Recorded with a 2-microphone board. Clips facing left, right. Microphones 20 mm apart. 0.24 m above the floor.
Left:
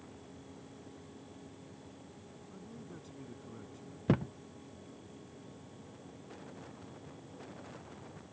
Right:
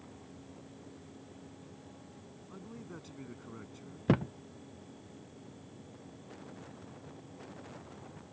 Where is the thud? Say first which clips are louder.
Right 2 dB; 15° right (ahead or behind).